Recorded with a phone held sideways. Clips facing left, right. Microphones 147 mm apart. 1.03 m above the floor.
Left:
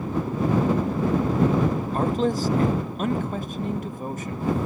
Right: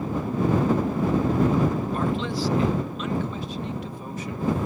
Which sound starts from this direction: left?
A man speaking, at 1.9 s.